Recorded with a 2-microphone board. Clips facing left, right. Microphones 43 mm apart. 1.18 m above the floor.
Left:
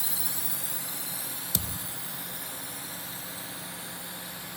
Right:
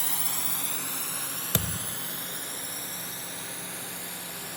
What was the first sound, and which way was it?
A drone, 60° right (ahead or behind).